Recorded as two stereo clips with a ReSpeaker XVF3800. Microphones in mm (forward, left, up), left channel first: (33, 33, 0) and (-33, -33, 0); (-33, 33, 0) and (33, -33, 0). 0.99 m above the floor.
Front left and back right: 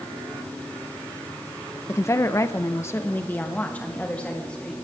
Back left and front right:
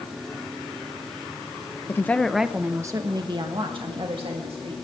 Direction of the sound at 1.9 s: 90° left.